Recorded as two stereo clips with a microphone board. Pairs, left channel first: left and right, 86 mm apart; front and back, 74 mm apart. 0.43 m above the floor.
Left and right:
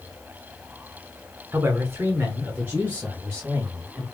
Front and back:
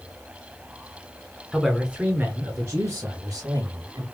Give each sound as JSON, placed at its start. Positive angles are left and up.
{"t": 1.5, "sound": "a man speaking", "azimuth_deg": -80, "distance_m": 0.9}